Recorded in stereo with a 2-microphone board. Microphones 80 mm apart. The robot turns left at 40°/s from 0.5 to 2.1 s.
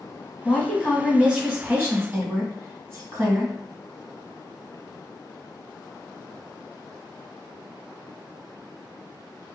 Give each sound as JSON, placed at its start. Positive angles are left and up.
{"t": 0.5, "sound": "a woman speaking", "azimuth_deg": 20, "distance_m": 1.6}